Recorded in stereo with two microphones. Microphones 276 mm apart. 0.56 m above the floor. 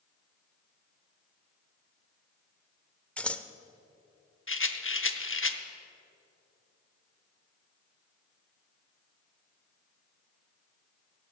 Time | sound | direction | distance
3.2 | scissors | 5° left (ahead or behind) | 0.5 m
4.5 | a rattle | 50° left (ahead or behind) | 0.7 m